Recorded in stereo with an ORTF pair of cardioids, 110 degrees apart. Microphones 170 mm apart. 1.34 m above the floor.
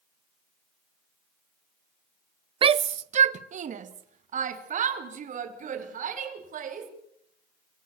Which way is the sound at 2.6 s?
30° right.